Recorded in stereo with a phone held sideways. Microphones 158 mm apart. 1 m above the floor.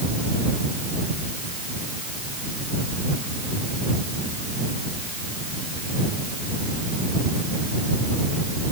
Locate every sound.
Only background noise.